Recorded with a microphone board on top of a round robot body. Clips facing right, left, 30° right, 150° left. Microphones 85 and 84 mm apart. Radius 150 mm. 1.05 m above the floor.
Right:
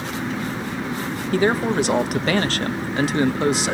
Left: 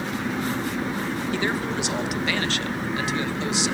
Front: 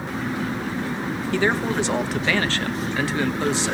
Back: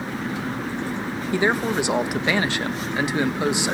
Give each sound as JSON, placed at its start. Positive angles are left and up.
{"t": 1.3, "sound": "a man speaking", "azimuth_deg": -135, "distance_m": 1.4}